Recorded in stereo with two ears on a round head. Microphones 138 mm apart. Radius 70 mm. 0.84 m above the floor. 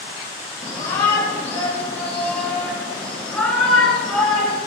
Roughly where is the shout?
Left.